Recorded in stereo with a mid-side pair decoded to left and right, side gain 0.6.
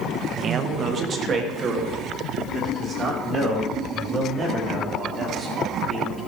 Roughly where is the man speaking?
Ahead right.